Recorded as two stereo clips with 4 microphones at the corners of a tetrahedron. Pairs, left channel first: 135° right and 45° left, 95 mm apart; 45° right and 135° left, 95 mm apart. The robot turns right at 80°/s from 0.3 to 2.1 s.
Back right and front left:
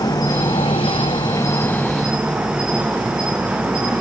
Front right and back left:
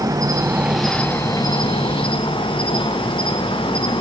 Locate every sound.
0.0 s an insect: 175° right, 1.1 m; by 4.0 s 35° right, 1.1 m